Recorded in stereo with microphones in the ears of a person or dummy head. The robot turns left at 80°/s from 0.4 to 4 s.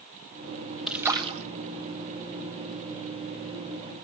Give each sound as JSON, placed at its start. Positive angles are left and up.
{"t": 0.9, "sound": "a splash", "azimuth_deg": -5, "distance_m": 1.0}